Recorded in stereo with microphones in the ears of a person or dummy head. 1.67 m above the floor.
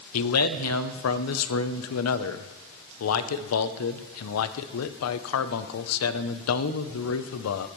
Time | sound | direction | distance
0.1 | a man speaking | 85° left | 0.7 m